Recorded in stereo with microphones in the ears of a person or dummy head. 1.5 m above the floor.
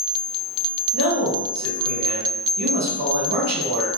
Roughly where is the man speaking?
Right.